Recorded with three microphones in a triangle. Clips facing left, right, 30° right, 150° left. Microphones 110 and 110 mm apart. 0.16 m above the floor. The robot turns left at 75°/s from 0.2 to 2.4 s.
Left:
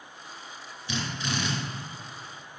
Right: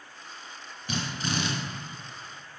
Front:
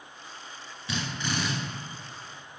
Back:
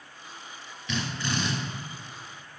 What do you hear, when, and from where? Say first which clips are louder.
0.9 s a drill: right 1 dB, back 1 dB; 75° right, 1.6 m; by 1.5 s 120° right, 1.6 m